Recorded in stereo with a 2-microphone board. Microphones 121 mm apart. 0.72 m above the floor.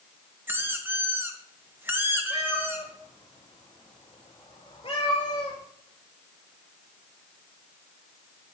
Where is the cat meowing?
50° left (ahead or behind), 3.5 m.